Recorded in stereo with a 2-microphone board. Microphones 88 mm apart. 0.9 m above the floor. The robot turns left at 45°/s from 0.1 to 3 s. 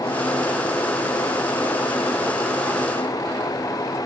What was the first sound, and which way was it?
Only background noise.